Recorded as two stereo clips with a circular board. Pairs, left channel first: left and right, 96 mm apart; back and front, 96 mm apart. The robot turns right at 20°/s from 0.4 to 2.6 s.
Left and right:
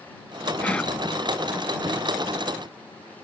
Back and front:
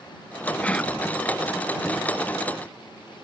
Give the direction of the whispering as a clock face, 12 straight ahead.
8 o'clock.